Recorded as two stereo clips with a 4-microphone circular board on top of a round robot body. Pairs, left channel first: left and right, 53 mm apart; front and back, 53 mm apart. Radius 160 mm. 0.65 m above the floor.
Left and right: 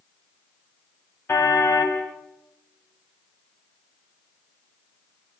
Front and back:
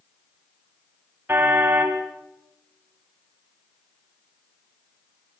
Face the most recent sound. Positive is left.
turn(degrees=130)